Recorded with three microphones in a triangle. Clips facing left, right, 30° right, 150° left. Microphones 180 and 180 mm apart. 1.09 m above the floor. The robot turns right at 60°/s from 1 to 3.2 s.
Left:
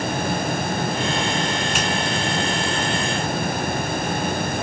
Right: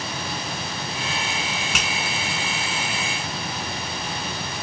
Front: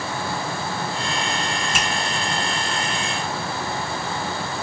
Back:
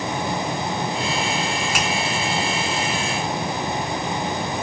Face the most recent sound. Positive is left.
turn(degrees=-10)